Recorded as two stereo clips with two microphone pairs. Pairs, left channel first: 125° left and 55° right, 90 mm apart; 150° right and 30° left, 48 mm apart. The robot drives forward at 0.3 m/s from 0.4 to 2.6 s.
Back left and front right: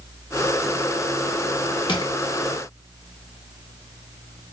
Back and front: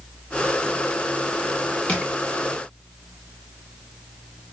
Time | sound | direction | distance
1.9 | crushing | 150° left | 0.9 m